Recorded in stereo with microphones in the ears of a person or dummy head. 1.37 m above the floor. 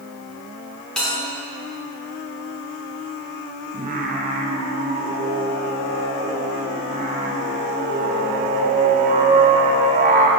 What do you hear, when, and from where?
1.0 s a bell: 5° left (ahead or behind), 1.9 m
3.7 s singing: 35° right (ahead or behind), 0.7 m